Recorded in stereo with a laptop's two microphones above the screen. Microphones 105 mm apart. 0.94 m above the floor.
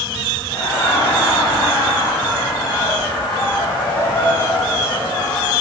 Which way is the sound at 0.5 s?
50° left (ahead or behind).